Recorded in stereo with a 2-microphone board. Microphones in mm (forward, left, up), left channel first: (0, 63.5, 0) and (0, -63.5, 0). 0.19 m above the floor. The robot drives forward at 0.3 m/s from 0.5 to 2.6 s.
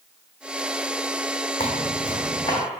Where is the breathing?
No breathing in this recording.